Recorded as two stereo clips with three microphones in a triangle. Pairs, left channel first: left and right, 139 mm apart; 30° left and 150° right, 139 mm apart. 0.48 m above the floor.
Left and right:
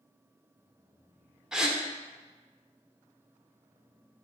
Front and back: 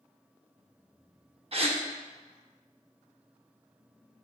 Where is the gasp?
175° right, 0.6 m.